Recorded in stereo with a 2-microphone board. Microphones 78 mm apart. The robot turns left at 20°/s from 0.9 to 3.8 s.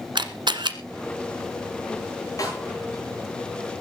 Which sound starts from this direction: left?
A snare drum, at 2.4 s.